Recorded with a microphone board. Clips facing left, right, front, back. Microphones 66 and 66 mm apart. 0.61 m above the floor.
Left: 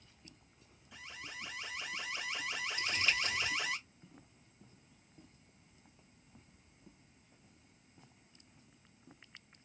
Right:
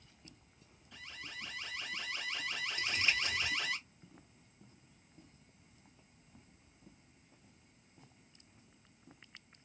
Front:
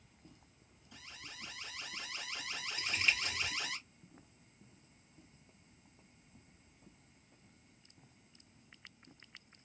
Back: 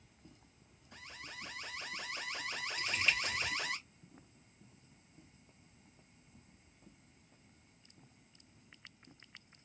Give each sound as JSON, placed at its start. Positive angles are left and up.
{"t": 0.9, "sound": "an alarm", "azimuth_deg": 165, "distance_m": 1.1}
{"t": 2.8, "sound": "crumpling", "azimuth_deg": -90, "distance_m": 1.4}